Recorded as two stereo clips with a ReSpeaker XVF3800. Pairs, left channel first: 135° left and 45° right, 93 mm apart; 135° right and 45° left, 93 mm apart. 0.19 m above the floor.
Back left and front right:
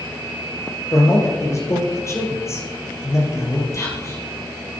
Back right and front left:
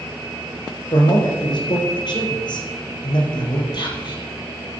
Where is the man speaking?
170° right, 4 m.